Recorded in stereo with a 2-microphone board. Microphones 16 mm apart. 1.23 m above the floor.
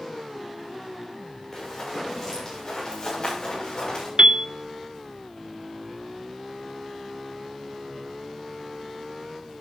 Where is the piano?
65° right (ahead or behind), 0.7 m.